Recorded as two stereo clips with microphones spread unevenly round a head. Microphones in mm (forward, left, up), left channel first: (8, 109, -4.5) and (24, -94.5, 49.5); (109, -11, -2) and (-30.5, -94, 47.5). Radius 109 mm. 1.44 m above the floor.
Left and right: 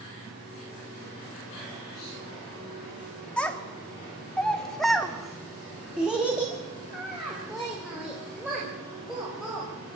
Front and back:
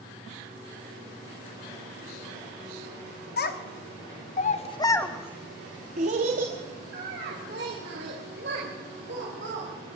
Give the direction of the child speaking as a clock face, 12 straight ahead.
12 o'clock.